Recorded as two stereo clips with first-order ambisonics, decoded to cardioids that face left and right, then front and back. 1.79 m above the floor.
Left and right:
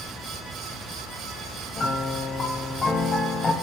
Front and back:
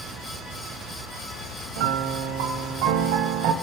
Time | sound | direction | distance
1.8 | a piano | 165° left | 1.4 m